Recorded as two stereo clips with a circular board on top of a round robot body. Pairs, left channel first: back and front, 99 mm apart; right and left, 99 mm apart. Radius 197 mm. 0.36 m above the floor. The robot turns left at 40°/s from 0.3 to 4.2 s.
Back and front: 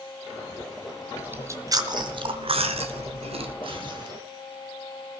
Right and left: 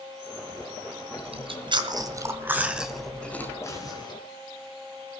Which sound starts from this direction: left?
Chewing, at 1.2 s.